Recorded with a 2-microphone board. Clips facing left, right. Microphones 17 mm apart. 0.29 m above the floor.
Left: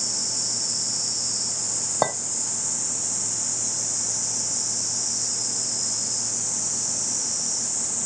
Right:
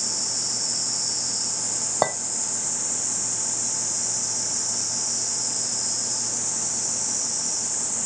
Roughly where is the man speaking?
I don't hear a man speaking.